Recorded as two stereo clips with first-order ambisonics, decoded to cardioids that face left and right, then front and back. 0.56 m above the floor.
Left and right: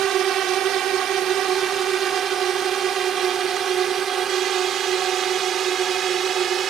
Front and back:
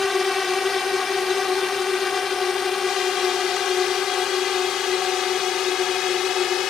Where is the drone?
65° right; by 6.7 s 45° right.